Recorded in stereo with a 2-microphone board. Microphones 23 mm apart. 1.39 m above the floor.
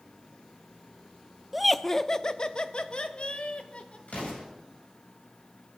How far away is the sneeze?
No sneeze in this recording.